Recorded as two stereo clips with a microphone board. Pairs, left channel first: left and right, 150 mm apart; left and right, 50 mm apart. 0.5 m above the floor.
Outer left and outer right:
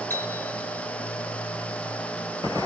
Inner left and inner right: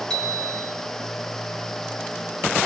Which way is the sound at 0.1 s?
15° left (ahead or behind).